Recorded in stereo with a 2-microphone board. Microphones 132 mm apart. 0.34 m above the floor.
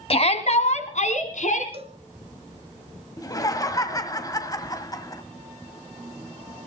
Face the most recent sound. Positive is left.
turn(degrees=25)  # may be behind; listen again after turning